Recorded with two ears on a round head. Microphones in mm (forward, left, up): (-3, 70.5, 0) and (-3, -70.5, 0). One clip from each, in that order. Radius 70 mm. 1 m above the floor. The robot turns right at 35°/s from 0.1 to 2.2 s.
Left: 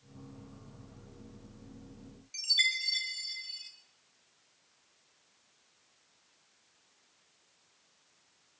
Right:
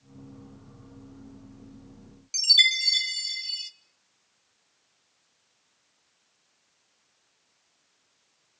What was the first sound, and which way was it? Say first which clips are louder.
A chime: right 9 dB; 75° right (ahead or behind).